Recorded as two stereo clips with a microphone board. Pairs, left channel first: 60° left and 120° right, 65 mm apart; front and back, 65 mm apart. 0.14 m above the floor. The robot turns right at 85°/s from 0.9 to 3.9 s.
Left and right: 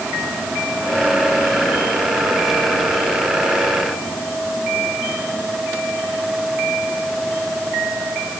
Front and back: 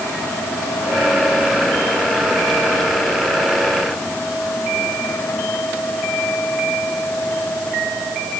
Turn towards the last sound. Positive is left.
No sound to turn to.